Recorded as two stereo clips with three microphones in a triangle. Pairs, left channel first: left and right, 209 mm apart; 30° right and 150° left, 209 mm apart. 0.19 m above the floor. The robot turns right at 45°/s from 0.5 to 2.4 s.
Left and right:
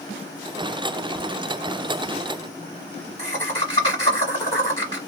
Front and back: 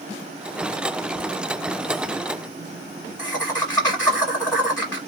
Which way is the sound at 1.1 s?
15° right.